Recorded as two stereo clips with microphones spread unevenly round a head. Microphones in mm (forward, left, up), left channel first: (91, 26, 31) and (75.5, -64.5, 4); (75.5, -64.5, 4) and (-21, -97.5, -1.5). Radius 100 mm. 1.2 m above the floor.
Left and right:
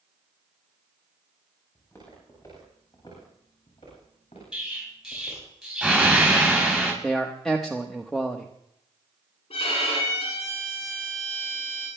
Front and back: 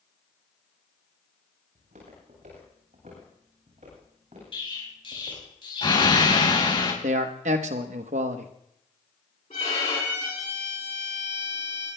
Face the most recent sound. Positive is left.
turn(degrees=80)